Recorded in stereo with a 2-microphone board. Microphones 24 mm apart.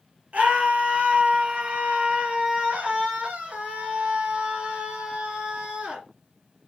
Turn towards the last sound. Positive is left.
turn(degrees=-50)  # may be behind; listen again after turning